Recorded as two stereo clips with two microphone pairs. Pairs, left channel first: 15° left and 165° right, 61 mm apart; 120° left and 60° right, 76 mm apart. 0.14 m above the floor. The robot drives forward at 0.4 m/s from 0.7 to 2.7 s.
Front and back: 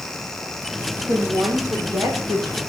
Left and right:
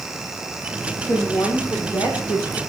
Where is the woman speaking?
160° left, 5.5 m.